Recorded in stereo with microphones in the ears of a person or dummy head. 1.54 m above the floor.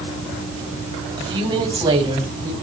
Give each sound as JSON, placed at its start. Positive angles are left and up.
{"t": 1.2, "sound": "a woman speaking", "side_deg": -25, "distance_m": 8.0}